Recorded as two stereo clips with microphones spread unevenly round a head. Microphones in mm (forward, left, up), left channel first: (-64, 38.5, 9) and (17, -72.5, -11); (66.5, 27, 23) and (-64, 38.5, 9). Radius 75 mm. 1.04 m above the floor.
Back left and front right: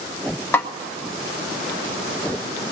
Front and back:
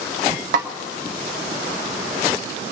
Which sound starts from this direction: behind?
A snare drum, at 0.5 s.